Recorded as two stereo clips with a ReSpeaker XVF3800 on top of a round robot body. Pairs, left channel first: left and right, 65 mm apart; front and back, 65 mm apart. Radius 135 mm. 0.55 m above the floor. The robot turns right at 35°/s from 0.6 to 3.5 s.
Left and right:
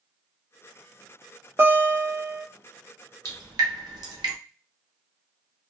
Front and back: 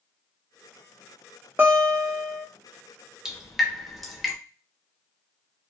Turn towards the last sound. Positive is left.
turn(degrees=-90)